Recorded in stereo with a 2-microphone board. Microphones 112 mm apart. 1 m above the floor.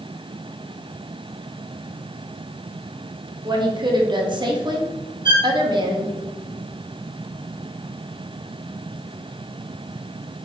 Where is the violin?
40° right (ahead or behind), 0.9 m.